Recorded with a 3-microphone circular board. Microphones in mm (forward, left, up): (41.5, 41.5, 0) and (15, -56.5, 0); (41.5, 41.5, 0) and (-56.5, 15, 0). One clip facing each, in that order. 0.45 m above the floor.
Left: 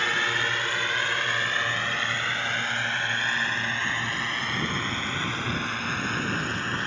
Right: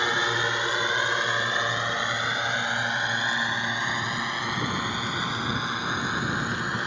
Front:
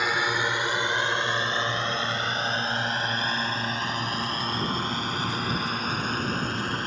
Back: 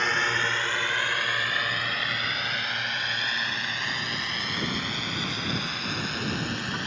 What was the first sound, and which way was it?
A drone, 60° right.